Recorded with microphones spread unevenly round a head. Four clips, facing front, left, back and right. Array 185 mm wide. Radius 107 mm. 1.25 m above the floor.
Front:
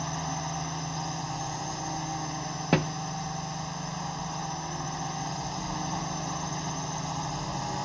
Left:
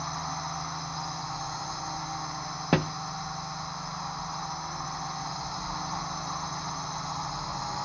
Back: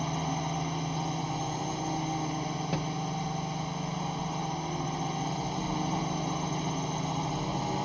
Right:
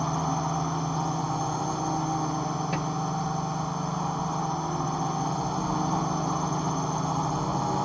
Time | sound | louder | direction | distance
0.0 | a drone | right 7 dB, back 1 dB | 120° right | ?
2.7 | a thud | left 3 dB, front 11 dB | 40° left | ?